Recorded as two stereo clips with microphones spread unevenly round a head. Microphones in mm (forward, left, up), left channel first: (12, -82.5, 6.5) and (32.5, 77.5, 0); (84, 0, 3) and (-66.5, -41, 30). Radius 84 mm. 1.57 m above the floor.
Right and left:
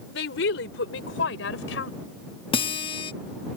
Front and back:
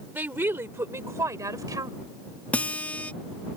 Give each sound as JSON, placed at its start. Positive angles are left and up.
{"t": 0.1, "sound": "a woman speaking", "azimuth_deg": -90}
{"t": 2.5, "sound": "a guitar", "azimuth_deg": -75}